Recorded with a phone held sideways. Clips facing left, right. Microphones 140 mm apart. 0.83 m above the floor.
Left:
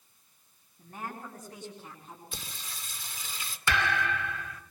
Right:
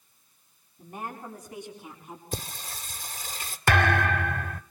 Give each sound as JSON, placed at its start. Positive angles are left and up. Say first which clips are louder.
{"t": 0.8, "sound": "a woman speaking", "louder": "right 3 dB", "side_deg": -15, "distance_m": 9.0}
{"t": 2.3, "sound": "singing", "louder": "right 9 dB", "side_deg": -45, "distance_m": 1.9}
{"t": 3.7, "sound": "a thud", "louder": "right 6 dB", "side_deg": -55, "distance_m": 1.0}